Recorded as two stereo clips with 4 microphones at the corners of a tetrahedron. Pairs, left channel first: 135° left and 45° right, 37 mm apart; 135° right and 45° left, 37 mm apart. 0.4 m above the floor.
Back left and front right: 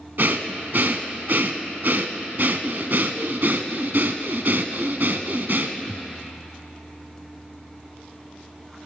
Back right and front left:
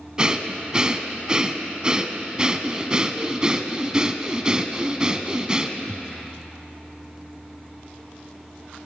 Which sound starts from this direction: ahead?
Breathing, at 0.2 s.